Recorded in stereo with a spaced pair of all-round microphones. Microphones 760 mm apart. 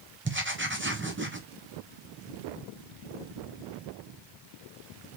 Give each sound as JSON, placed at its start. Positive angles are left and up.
{"t": 0.2, "sound": "writing", "side_deg": -15, "distance_m": 0.6}